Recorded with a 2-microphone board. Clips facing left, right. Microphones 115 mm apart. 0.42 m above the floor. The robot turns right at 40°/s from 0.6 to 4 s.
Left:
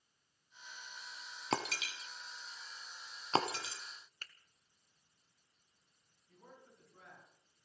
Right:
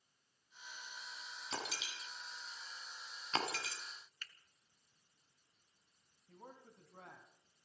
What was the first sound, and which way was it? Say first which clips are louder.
Breaking glass: left 8 dB; 70° left (ahead or behind).